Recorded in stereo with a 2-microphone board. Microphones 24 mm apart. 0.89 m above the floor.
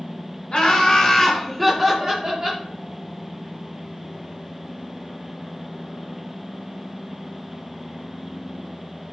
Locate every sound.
0.5 s laughter: 40° left (ahead or behind), 0.8 m; by 2.6 s 25° right (ahead or behind), 0.8 m